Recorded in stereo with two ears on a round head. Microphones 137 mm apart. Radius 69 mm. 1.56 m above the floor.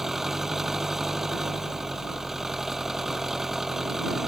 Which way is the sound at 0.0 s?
Centre (ahead or behind).